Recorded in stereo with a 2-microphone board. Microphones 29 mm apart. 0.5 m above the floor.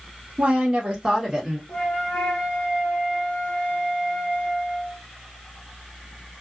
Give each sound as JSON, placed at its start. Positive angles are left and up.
{"t": 0.4, "sound": "a woman speaking", "side_deg": -40, "distance_m": 1.5}
{"t": 1.7, "sound": "a flute", "side_deg": 35, "distance_m": 1.5}